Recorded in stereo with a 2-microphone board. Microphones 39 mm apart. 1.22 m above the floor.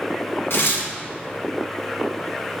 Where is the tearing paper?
80° left, 1.7 m.